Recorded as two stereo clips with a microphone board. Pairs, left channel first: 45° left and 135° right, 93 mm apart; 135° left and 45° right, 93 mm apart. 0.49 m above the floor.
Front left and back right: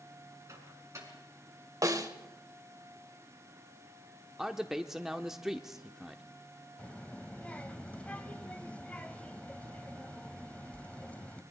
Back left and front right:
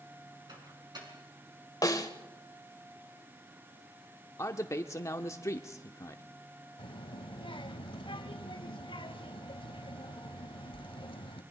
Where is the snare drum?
Straight behind, 1.5 m.